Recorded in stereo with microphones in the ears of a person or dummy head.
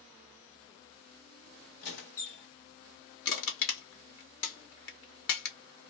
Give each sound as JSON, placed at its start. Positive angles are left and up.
{"t": 1.8, "sound": "a squeak", "side_deg": 60, "distance_m": 1.4}
{"t": 3.2, "sound": "crushing", "side_deg": 70, "distance_m": 1.8}